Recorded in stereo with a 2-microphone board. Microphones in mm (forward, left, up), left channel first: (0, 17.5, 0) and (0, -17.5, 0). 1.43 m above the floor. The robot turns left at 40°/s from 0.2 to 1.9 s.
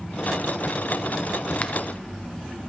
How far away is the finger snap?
About 0.7 m.